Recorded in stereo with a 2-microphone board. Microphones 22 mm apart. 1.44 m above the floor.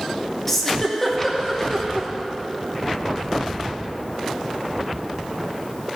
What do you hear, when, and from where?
0.5 s a giggle: 15° left (ahead or behind), 1.6 m